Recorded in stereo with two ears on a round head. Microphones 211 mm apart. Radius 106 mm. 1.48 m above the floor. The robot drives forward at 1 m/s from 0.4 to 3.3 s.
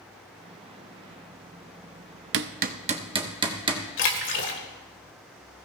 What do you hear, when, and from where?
2.3 s hammering: 55° right (ahead or behind), 0.6 m; by 3.8 s 20° right (ahead or behind), 1.3 m
4.0 s a splash: 55° left (ahead or behind), 1.8 m